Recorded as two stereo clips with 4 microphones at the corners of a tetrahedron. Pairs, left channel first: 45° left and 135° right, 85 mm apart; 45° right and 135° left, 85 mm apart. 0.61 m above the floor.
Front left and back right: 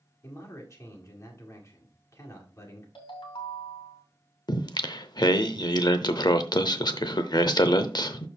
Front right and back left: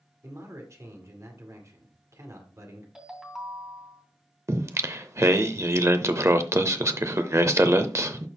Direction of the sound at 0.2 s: 90° left.